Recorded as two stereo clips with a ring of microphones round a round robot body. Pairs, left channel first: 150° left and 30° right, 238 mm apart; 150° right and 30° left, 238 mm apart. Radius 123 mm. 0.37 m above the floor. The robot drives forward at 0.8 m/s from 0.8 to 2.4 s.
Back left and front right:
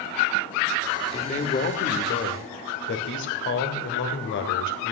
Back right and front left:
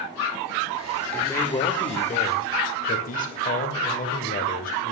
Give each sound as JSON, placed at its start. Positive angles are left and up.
{"t": 1.1, "sound": "a man speaking", "azimuth_deg": 135, "distance_m": 1.2}